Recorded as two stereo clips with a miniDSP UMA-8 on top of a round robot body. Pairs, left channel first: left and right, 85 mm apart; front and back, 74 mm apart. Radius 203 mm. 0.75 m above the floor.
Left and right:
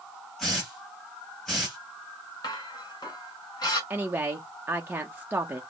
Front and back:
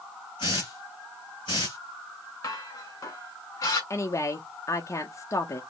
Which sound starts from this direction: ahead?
A hiss, at 0.4 s.